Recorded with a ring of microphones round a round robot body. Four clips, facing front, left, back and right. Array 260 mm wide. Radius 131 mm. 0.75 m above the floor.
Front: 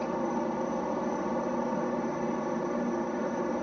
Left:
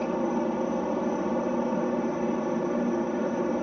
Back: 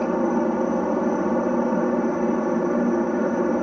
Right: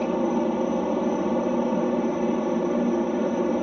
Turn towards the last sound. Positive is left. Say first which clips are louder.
# right 4 dB, back 9 dB
turn(degrees=-155)